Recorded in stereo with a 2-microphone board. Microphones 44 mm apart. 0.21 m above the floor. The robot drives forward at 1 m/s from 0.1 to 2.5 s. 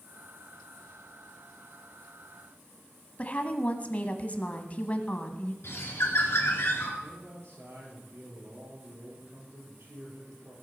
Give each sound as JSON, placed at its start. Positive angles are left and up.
{"t": 3.2, "sound": "a woman speaking", "side_deg": 35, "distance_m": 1.2}
{"t": 5.6, "sound": "a bird", "side_deg": 65, "distance_m": 3.0}
{"t": 7.0, "sound": "a man speaking", "side_deg": -75, "distance_m": 5.5}